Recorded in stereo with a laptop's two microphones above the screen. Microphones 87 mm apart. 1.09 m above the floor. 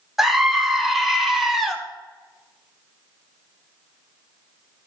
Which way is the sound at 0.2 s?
Centre (ahead or behind).